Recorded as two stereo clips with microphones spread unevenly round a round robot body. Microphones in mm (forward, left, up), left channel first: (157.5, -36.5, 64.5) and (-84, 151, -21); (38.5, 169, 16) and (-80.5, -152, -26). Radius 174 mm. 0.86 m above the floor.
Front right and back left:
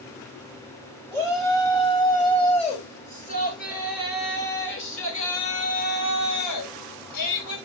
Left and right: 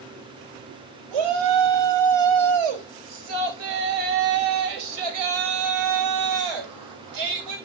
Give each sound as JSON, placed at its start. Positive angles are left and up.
{"t": 1.1, "sound": "a shout", "azimuth_deg": -120, "distance_m": 4.5}